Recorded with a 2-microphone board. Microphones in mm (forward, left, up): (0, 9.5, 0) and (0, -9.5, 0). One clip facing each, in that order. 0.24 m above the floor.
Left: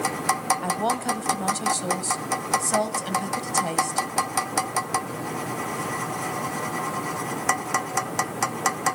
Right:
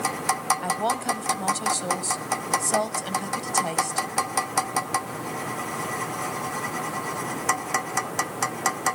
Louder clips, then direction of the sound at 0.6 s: Even; 5° right (ahead or behind).